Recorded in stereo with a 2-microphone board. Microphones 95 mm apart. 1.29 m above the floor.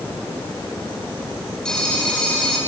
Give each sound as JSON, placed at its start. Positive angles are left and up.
{"t": 1.6, "sound": "a phone ringing", "side_deg": 5, "distance_m": 4.0}